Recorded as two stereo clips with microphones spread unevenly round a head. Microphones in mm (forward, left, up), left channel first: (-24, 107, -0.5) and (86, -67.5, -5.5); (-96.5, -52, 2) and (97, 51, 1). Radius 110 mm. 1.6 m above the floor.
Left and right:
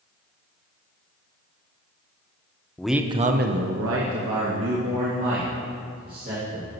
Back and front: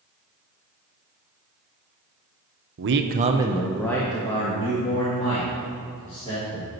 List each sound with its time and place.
2.8 s a man speaking: 40° left, 0.7 m; by 6.7 s 95° right, 3.5 m